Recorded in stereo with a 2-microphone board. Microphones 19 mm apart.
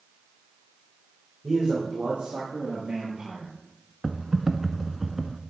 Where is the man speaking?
75° right (ahead or behind), 4 m; by 3.5 s 30° right (ahead or behind), 2 m.